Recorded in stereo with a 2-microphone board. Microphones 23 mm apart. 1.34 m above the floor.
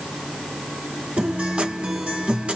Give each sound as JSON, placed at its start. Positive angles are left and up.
{"t": 1.2, "sound": "a guitar", "side_deg": -70, "distance_m": 3.0}